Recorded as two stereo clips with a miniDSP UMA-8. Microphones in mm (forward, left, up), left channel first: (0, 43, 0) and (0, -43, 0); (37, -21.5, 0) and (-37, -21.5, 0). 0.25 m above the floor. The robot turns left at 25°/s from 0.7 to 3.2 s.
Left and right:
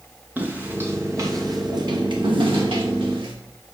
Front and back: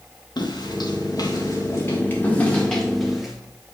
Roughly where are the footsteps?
Ahead.